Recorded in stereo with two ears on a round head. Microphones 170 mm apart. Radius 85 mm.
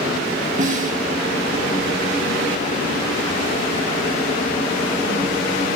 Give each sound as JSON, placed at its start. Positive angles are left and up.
{"t": 0.6, "sound": "a snare drum", "side_deg": -40, "distance_m": 1.8}